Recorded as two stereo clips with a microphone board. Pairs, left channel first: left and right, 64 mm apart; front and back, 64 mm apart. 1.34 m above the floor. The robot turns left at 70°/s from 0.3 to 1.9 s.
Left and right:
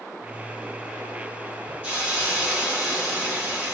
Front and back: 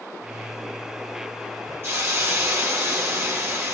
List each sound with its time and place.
1.8 s a hiss: 160° right, 1.3 m; by 3.8 s 165° right, 1.3 m